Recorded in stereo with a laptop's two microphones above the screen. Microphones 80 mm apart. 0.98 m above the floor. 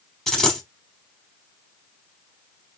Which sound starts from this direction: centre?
A dropped coin, at 0.3 s.